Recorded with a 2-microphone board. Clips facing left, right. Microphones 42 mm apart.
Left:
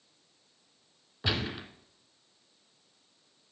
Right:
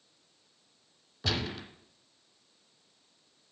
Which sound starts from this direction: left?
A gunshot, at 1.2 s.